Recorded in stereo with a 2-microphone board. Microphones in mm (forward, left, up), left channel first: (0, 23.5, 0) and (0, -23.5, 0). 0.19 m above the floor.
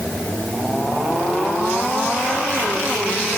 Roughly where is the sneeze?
I don't hear a sneeze.